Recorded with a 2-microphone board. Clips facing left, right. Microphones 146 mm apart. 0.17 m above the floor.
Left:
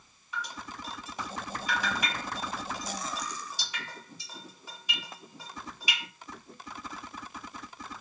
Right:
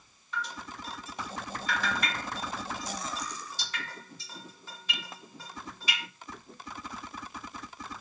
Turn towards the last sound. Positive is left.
turn(degrees=15)  # may be behind; listen again after turning